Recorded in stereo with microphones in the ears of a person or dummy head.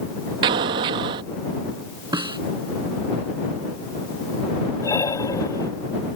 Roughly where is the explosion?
Right.